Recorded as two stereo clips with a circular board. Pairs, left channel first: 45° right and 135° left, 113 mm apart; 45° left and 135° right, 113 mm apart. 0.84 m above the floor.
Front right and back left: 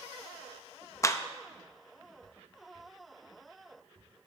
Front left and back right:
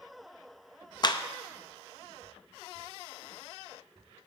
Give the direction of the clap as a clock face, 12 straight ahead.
12 o'clock.